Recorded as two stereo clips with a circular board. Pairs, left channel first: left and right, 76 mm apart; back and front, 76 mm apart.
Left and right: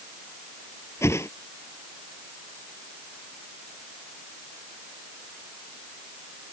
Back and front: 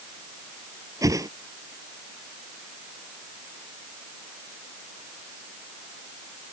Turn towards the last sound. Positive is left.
turn(degrees=40)